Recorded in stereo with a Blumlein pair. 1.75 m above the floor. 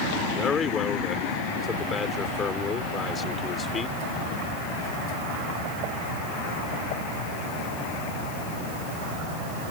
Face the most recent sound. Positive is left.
turn(degrees=20)